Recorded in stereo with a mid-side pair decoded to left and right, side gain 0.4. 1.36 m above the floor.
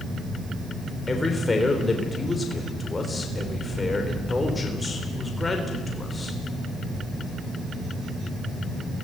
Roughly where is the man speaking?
Ahead left.